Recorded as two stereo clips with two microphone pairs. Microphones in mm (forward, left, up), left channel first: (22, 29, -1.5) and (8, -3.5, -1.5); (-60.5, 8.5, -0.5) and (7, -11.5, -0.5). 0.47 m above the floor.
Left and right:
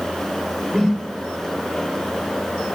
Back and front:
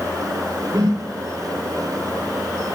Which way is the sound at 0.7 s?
20° right.